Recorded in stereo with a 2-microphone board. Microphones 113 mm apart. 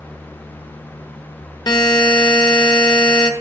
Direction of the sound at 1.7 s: 40° left (ahead or behind).